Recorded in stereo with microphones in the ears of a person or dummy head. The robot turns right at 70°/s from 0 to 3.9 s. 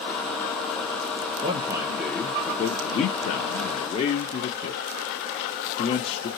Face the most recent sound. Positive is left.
turn(degrees=130)